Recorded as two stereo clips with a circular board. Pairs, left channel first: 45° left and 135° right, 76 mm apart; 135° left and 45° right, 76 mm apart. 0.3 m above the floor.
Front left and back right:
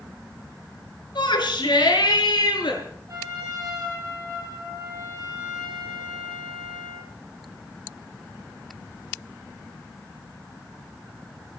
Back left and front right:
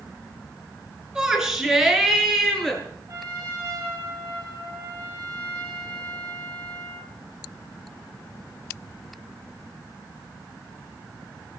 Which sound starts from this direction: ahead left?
A shout, at 1.1 s.